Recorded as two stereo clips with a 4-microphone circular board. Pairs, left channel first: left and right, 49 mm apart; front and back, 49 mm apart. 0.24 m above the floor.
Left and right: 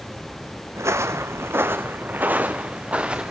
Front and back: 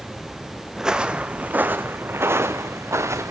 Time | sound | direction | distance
0.8 | footsteps | 100° right | 1.0 m